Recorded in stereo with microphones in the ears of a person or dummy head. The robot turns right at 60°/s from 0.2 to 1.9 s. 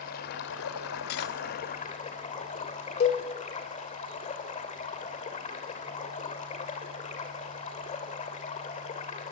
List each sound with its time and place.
0.0 s running water: 45° left, 3 m; by 9.3 s 150° left, 3 m
1.1 s cutlery clinking: 50° left (ahead or behind), 1.7 m; by 1.4 s 65° left (ahead or behind), 1.7 m
3.0 s a cowbell: 35° left (ahead or behind), 2.0 m